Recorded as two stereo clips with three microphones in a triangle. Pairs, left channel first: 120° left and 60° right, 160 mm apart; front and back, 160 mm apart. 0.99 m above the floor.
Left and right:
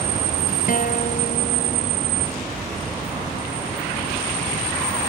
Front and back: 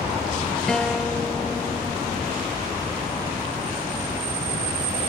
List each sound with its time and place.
0.7 s a guitar: 85° left